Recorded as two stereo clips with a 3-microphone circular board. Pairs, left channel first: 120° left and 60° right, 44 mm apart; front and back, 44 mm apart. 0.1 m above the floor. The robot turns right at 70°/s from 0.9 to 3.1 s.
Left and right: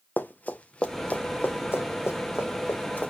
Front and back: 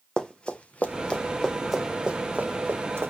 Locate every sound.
0.2 s running footsteps: 75° left, 1.5 m; by 3.1 s 170° left, 2.5 m